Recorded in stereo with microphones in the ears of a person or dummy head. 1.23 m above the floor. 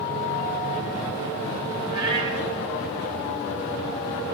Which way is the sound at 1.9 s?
25° right (ahead or behind).